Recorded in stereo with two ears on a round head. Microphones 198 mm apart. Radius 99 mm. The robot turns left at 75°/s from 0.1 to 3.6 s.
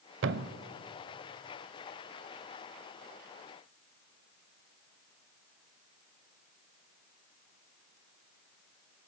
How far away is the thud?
About 0.7 m.